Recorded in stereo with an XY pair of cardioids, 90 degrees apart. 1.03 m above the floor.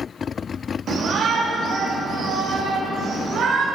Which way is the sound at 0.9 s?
65° right.